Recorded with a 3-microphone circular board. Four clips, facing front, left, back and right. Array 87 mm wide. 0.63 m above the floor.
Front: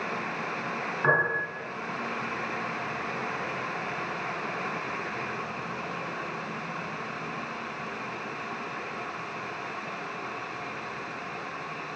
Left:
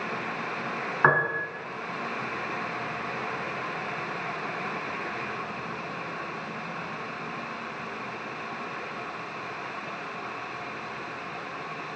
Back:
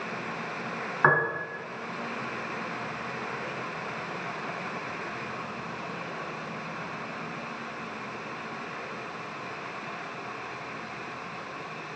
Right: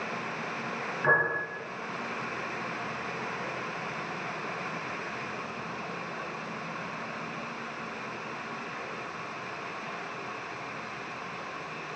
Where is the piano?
120° left, 5 m.